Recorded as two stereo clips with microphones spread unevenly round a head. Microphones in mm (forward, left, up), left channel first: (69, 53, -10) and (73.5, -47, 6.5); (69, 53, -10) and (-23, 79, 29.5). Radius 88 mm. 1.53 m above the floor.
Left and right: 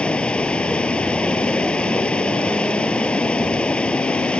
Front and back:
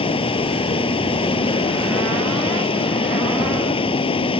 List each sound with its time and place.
0.0 s running water: 15° left